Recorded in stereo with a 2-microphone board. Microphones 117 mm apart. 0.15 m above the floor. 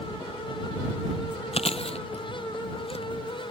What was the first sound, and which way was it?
Chewing, 60° left (ahead or behind).